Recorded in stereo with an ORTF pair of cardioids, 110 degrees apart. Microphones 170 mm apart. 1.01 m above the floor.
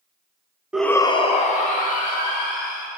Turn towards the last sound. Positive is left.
turn(degrees=60)